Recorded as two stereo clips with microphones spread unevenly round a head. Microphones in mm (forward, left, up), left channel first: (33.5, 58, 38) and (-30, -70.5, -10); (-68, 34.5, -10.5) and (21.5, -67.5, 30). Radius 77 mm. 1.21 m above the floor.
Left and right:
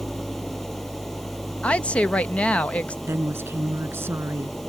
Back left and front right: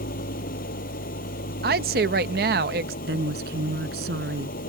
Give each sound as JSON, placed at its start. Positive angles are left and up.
{"t": 0.0, "sound": "an engine running", "azimuth_deg": 150}
{"t": 1.6, "sound": "a woman speaking", "azimuth_deg": -20}
{"t": 3.0, "sound": "a woman speaking", "azimuth_deg": -40}